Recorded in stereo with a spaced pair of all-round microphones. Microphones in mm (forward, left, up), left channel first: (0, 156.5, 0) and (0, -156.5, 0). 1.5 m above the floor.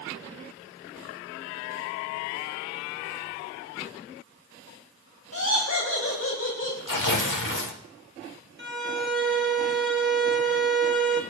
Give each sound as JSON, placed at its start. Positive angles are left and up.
{"t": 5.3, "sound": "laughter", "side_deg": 55, "distance_m": 2.0}
{"t": 6.9, "sound": "tearing paper", "side_deg": 80, "distance_m": 1.2}
{"t": 8.6, "sound": "a violin", "side_deg": -35, "distance_m": 1.3}